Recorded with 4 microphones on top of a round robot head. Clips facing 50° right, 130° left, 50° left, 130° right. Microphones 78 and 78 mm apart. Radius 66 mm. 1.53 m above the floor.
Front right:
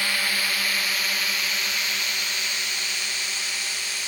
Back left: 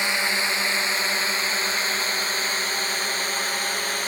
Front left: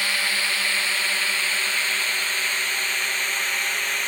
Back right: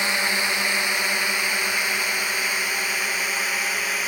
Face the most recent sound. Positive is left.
turn(degrees=150)